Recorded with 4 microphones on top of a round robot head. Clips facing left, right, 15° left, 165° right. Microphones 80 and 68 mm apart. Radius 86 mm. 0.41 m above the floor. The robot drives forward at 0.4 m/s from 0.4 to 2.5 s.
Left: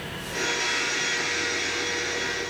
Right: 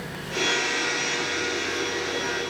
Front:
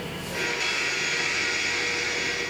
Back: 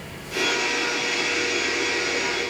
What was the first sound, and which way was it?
Only background noise.